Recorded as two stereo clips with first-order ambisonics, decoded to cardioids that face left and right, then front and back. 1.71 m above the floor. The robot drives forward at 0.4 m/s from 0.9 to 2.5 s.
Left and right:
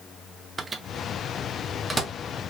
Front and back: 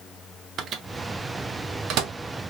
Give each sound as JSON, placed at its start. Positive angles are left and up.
{"t": 0.6, "sound": "a microwave", "azimuth_deg": -155, "distance_m": 0.8}